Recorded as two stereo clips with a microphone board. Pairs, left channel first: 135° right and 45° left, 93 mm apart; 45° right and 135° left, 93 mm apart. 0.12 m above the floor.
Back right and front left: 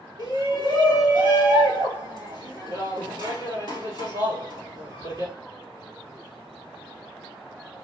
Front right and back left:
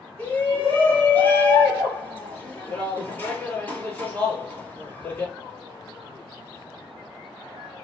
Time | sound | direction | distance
0.2 | a shout | 20° left | 2.5 m